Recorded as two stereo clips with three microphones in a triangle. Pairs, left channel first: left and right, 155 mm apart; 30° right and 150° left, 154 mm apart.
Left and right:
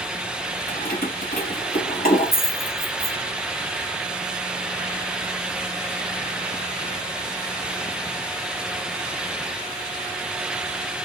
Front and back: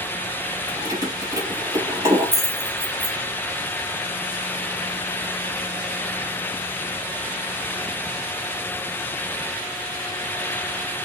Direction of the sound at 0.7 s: 85° left.